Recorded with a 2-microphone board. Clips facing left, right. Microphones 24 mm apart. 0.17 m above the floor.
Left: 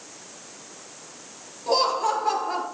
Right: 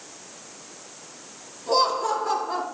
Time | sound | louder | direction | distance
1.7 | laughter | even | 25° left (ahead or behind) | 2.5 m